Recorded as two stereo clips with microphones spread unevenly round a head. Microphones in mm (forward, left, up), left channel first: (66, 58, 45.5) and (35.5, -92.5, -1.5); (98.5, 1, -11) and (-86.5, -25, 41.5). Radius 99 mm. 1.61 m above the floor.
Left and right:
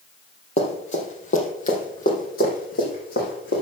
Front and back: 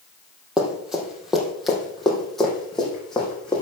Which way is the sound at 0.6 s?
110° left.